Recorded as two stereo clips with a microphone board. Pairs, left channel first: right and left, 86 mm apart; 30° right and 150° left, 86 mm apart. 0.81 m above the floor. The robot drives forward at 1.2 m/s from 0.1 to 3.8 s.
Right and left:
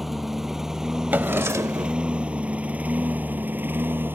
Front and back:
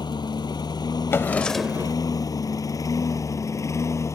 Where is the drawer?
25° left; by 2.0 s 125° left.